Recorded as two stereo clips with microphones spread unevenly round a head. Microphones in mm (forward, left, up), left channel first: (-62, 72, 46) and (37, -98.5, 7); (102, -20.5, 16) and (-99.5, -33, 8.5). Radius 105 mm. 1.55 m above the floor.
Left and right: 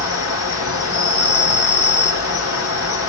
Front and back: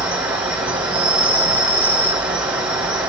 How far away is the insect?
About 2.5 m.